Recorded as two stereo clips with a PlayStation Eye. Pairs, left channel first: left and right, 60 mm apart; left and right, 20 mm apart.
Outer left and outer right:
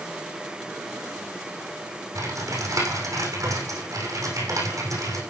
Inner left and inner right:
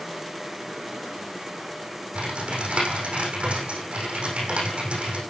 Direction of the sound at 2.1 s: 75° right (ahead or behind).